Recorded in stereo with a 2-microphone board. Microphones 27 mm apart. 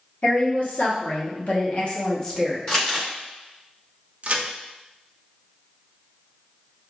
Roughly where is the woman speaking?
Left.